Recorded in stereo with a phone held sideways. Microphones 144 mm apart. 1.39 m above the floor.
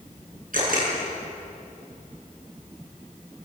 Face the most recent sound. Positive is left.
turn(degrees=-75)  # may be behind; listen again after turning